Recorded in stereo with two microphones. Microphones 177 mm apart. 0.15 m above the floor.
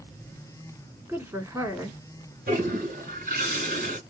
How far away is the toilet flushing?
About 2 m.